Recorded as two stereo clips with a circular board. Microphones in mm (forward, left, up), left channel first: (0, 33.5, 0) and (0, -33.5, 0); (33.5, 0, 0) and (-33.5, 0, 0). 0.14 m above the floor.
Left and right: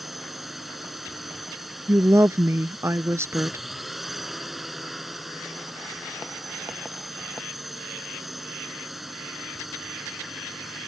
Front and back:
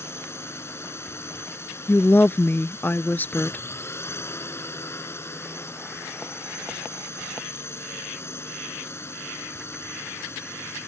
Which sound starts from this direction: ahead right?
A woman speaking, at 1.9 s.